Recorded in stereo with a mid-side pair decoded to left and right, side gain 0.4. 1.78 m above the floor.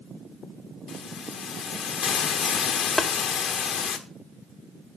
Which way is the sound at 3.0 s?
20° left.